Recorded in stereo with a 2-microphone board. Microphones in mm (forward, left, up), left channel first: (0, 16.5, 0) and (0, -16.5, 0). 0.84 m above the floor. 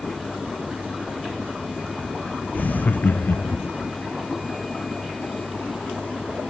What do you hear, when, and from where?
2.5 s laughter: 55° left (ahead or behind), 0.6 m